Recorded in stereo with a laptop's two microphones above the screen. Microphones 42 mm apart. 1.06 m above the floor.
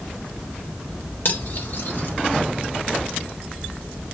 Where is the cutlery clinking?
55° left (ahead or behind), 1.3 m.